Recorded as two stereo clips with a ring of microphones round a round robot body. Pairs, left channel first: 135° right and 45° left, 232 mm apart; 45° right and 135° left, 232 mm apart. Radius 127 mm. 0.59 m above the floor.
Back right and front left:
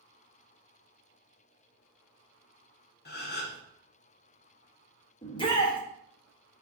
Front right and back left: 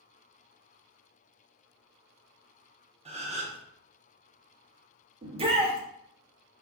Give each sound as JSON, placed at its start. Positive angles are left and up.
{"t": 3.0, "sound": "a gasp", "azimuth_deg": -170, "distance_m": 0.6}
{"t": 5.2, "sound": "a shout", "azimuth_deg": 175, "distance_m": 0.9}